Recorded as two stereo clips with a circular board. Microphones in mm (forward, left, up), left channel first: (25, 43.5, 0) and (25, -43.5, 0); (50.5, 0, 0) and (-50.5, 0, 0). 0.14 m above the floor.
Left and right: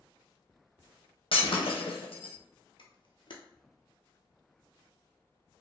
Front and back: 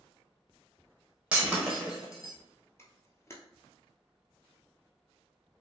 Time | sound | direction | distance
1.3 | breaking glass | 100° left | 1.2 m
2.8 | a camera shutter | 65° left | 0.7 m